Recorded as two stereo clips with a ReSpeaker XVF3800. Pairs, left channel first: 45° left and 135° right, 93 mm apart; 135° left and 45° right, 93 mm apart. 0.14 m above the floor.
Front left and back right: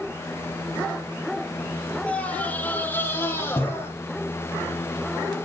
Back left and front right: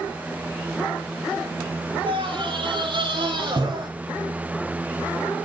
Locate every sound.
2.1 s a scream: 30° right, 4.5 m; by 3.9 s 15° right, 6.5 m